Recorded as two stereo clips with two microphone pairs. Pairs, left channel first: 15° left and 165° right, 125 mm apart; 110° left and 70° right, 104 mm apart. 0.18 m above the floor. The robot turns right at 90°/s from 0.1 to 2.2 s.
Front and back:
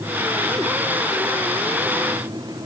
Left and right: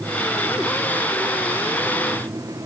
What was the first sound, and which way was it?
Only background noise.